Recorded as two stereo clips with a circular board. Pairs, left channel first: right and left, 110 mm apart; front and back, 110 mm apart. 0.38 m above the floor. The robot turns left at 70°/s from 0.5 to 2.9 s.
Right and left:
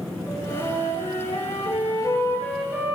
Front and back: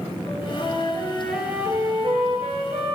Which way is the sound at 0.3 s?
40° right.